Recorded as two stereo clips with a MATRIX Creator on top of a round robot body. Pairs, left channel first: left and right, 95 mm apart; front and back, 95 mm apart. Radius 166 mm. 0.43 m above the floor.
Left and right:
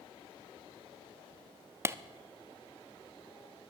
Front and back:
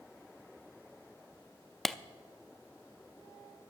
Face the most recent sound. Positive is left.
turn(degrees=-85)